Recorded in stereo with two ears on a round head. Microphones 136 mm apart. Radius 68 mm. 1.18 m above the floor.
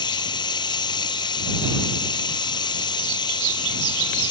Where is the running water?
30° left (ahead or behind).